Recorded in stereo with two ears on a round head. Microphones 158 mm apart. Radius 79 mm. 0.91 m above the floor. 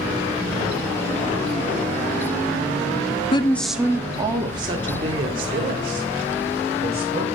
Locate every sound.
3.3 s a woman speaking: 30° left (ahead or behind), 0.6 m; by 7.2 s 35° right (ahead or behind), 5.5 m